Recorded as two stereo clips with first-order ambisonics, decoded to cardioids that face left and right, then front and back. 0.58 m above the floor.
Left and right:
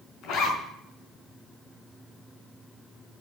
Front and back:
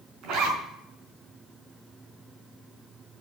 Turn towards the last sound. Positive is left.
turn(degrees=135)